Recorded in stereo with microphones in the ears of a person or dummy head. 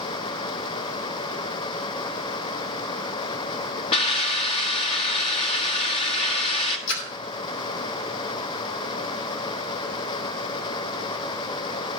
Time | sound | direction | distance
3.9 | a hiss | 30° left (ahead or behind) | 1.4 m
6.9 | a splash | 75° left (ahead or behind) | 2.5 m